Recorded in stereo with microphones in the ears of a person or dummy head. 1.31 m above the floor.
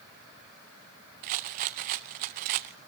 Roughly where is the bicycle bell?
No bicycle bell in this recording.